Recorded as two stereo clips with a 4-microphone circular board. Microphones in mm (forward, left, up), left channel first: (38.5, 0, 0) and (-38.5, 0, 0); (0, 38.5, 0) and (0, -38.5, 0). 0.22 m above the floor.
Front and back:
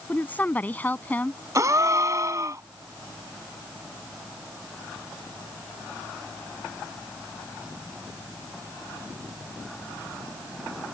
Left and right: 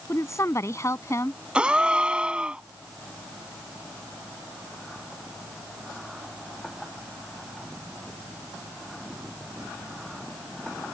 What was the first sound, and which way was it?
A woman speaking, 60° left.